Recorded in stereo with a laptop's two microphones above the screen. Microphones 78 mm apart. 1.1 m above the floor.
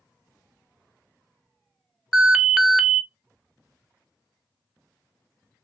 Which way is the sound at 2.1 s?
5° right (ahead or behind).